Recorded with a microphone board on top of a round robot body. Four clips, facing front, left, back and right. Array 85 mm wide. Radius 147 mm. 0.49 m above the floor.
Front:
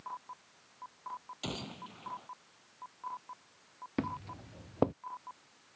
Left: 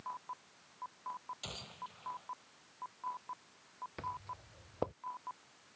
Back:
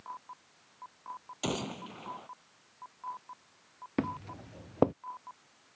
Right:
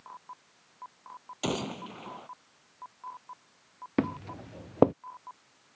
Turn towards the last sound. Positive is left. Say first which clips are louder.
# right 14 dB, back 3 dB
turn(degrees=-100)